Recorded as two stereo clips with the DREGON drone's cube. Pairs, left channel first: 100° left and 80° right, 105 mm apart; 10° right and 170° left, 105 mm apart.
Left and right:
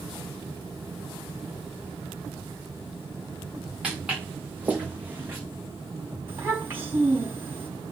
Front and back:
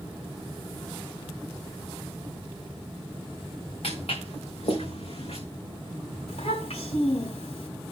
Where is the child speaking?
10° right, 4.5 m.